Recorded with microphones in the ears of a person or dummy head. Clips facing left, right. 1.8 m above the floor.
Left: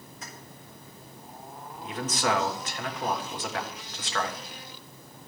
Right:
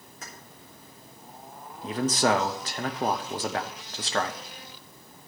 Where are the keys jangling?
45° right (ahead or behind), 2.5 m.